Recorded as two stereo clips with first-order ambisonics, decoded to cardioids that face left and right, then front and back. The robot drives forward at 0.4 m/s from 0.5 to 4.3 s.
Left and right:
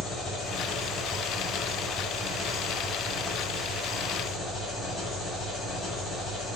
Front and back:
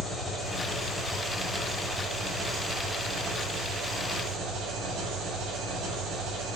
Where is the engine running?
45° left, 1.1 m; by 6.6 s 165° left, 1.6 m.